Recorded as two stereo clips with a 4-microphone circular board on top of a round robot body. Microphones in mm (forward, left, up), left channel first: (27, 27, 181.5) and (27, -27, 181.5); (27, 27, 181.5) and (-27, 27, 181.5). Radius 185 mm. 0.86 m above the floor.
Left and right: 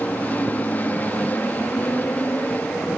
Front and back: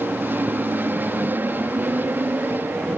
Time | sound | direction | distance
0.0 | an aircraft | 140° left | ?